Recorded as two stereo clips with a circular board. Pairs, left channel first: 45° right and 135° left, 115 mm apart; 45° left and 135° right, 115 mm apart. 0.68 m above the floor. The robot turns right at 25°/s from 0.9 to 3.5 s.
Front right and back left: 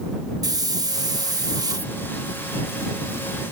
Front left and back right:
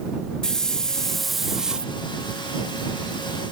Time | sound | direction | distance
0.4 | a hiss | 125° left | ?